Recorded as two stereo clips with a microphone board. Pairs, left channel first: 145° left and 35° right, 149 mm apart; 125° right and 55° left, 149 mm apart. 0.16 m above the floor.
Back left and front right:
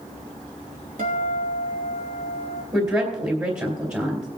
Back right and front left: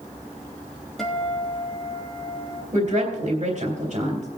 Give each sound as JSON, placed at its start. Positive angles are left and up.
{"t": 1.0, "sound": "a guitar", "azimuth_deg": -35, "distance_m": 3.0}
{"t": 2.7, "sound": "a woman speaking", "azimuth_deg": 30, "distance_m": 3.0}